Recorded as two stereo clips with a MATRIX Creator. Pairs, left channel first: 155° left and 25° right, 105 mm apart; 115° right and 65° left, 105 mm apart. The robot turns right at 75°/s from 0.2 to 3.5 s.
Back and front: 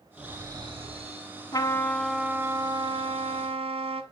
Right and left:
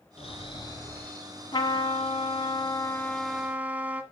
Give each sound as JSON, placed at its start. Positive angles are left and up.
{"t": 0.2, "sound": "snoring", "azimuth_deg": -100, "distance_m": 2.5}
{"t": 1.5, "sound": "a trumpet", "azimuth_deg": -155, "distance_m": 1.3}